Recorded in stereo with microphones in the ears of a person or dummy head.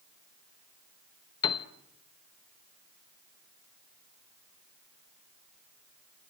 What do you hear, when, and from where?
1.4 s a piano: 25° left (ahead or behind), 1.2 m